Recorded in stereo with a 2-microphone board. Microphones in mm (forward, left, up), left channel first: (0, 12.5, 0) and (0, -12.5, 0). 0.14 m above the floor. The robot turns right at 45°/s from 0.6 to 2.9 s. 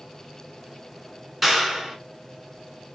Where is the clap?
5° right (ahead or behind), 1.0 m; by 2.0 s 20° right (ahead or behind), 1.0 m.